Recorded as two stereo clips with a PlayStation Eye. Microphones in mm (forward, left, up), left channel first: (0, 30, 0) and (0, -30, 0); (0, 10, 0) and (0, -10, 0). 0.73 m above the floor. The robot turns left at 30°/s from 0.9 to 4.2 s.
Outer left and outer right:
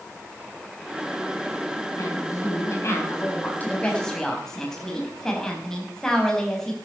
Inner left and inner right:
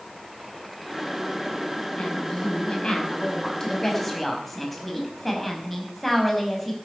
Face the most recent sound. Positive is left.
turn(degrees=10)